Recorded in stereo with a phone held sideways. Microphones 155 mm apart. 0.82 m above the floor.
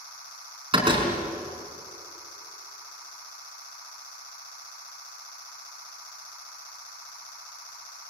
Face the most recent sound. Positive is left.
turn(degrees=-35)  # may be behind; listen again after turning